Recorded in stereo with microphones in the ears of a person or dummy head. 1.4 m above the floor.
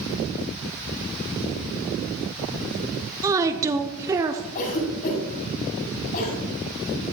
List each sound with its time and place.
3.2 s a woman speaking: 15° right (ahead or behind), 0.8 m
4.5 s a cough: 50° left (ahead or behind), 6.5 m